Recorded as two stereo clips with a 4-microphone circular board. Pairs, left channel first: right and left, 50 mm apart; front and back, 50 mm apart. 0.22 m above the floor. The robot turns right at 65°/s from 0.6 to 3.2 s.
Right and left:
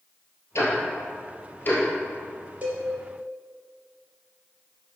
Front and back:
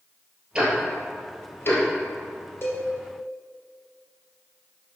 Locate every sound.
0.6 s ticking: 110° right, 2.5 m; by 1.8 s 30° right, 2.5 m
2.6 s a cowbell: 30° left, 2 m; by 2.9 s 45° left, 2 m